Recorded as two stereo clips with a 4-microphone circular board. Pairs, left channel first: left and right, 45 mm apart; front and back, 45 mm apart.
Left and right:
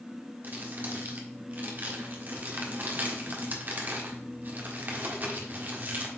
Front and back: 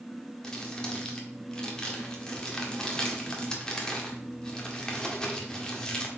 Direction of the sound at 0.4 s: 70° right.